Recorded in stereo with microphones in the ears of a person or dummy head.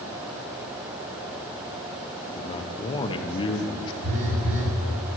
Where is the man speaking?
25° left (ahead or behind), 0.6 m.